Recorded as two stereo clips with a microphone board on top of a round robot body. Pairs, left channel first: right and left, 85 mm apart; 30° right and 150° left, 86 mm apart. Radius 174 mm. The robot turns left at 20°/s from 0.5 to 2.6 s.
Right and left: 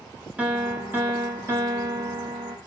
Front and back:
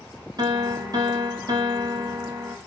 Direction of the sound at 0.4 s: 160° left.